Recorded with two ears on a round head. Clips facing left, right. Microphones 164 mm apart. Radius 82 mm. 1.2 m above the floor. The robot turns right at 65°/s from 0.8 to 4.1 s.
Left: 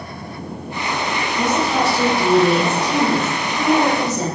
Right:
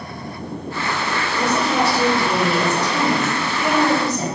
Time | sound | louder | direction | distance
1.4 | a woman speaking | left 1 dB | 20° right | 1.3 m